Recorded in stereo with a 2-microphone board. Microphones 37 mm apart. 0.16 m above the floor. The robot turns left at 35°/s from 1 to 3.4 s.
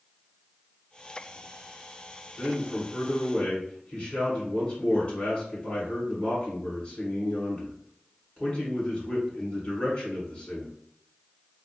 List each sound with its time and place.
2.4 s a man speaking: 80° left, 1.9 m; by 10.7 s 45° left, 1.9 m